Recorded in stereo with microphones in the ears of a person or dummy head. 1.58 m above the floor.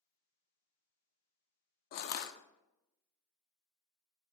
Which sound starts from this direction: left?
Crushing, at 1.9 s.